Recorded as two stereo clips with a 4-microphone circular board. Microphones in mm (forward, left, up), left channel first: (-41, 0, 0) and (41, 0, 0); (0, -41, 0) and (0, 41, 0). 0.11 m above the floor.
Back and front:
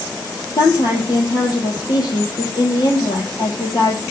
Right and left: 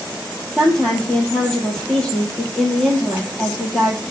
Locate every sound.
0.6 s a woman speaking: 170° right, 3.5 m